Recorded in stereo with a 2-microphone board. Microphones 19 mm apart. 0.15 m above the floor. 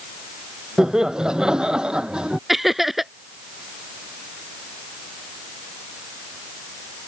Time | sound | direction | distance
0.8 | laughter | 40° right (ahead or behind) | ?
2.5 | laughter | 10° right (ahead or behind) | ?